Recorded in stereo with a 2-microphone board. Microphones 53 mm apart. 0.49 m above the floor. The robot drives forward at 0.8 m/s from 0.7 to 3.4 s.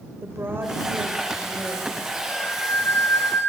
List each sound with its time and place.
0.2 s a woman speaking: 45° right (ahead or behind), 1.6 m; by 2.0 s 30° right (ahead or behind), 2.5 m
2.3 s a flute: 40° left (ahead or behind), 2.5 m; by 3.5 s 50° left (ahead or behind), 2.5 m